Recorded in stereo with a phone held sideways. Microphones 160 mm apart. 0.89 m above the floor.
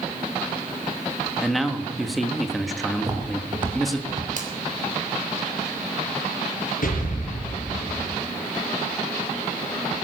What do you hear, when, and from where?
1.4 s a man speaking: centre (ahead or behind), 1.3 m
3.0 s footsteps: 25° right (ahead or behind), 4 m; by 4.3 s 40° right (ahead or behind), 3.5 m
4.4 s a finger snap: 60° right (ahead or behind), 3.5 m
6.8 s an explosion: 65° left (ahead or behind), 6 m